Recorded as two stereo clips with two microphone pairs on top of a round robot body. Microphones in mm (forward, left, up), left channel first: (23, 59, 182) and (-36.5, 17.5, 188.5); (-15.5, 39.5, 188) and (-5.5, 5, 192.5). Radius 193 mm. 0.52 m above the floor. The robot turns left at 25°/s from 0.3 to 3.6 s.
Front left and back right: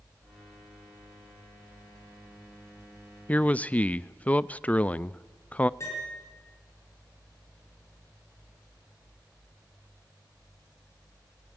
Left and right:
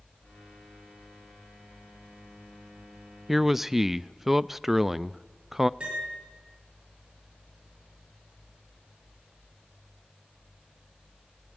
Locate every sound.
3.3 s a man speaking: 20° left, 0.6 m; by 5.7 s 15° left, 0.6 m
5.8 s a piano: 15° right, 6.5 m